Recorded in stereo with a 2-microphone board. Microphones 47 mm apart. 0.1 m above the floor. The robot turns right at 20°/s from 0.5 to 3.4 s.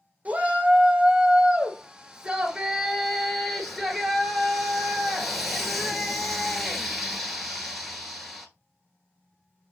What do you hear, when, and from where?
0.2 s a shout: 60° right, 1.3 m; by 8.5 s straight ahead, 1.3 m